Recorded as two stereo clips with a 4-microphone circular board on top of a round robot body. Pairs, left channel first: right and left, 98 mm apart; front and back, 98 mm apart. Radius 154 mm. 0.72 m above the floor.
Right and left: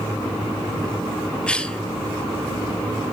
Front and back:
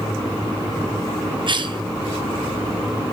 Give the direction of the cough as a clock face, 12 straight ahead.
6 o'clock.